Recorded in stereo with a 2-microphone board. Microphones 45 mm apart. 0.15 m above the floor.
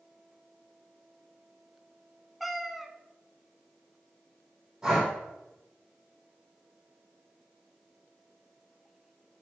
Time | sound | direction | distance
2.4 | a cat meowing | 5° right (ahead or behind) | 0.6 m
4.8 | breathing | 20° right (ahead or behind) | 4 m